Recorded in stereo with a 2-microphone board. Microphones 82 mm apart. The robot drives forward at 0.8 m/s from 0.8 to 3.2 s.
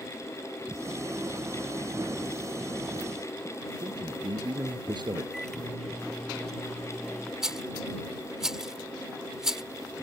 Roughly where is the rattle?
Centre.